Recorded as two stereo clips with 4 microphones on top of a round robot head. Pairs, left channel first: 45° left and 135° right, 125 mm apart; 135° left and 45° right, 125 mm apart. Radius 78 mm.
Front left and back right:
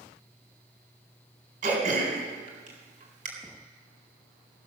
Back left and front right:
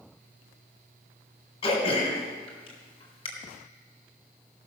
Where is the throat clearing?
165° right, 3.5 m.